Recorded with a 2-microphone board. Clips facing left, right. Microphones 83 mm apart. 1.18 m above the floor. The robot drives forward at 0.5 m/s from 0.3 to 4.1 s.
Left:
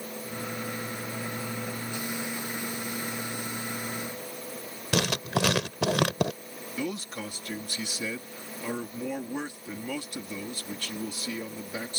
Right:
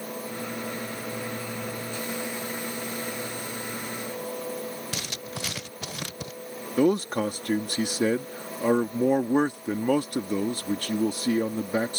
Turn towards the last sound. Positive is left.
turn(degrees=-50)  # may be behind; listen again after turning